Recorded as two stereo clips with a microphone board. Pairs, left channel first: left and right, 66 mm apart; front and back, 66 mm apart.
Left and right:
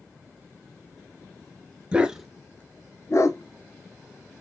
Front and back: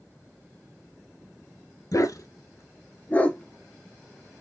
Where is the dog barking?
20° right, 0.6 m; by 4.4 s 90° left, 1.1 m.